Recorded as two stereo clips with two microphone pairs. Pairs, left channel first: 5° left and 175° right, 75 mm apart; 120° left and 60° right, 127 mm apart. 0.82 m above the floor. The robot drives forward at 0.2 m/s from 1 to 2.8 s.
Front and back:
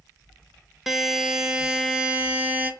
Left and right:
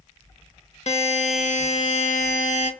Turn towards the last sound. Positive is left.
turn(degrees=115)